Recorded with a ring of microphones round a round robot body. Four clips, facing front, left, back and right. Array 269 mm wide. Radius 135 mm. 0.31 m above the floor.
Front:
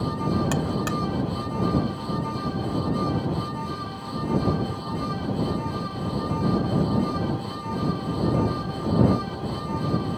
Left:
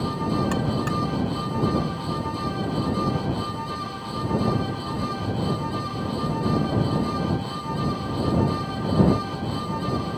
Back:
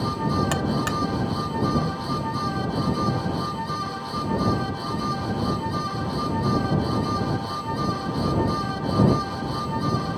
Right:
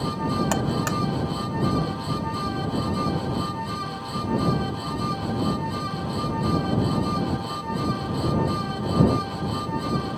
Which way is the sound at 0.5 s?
105° right.